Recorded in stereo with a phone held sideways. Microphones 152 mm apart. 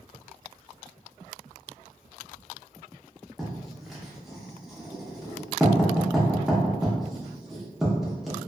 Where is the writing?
Centre (ahead or behind), 0.7 m.